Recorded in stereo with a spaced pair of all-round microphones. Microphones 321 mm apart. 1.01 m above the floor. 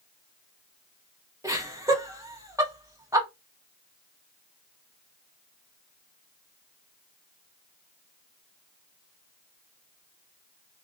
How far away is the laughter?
About 2 m.